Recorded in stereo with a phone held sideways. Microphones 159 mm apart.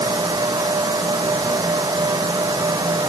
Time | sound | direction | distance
0.0 | a fan | 25° right (ahead or behind) | ?